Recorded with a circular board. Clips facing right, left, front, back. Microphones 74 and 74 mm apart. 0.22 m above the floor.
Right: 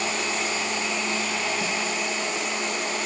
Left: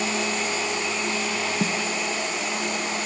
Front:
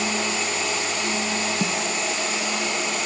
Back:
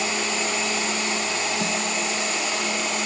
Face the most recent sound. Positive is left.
turn(degrees=50)